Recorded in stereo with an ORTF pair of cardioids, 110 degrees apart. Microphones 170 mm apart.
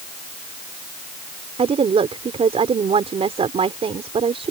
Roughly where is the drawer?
No drawer in this recording.